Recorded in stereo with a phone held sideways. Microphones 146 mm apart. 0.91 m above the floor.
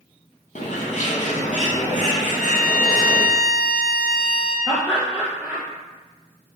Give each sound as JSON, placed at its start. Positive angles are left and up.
{"t": 0.6, "sound": "a bird", "side_deg": 60, "distance_m": 0.6}
{"t": 2.2, "sound": "a violin", "side_deg": 85, "distance_m": 0.6}
{"t": 4.7, "sound": "laughter", "side_deg": -10, "distance_m": 0.6}